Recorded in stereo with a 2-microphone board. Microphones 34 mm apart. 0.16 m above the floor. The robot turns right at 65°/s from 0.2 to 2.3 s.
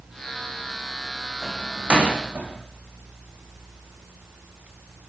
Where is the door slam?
Centre (ahead or behind), 6 m; by 2.5 s 55° right (ahead or behind), 6 m.